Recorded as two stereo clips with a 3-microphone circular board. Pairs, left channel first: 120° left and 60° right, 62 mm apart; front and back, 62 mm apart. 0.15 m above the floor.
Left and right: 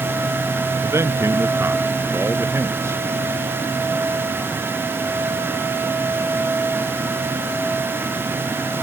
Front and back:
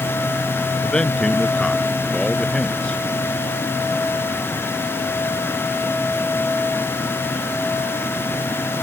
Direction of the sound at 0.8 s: 70° right.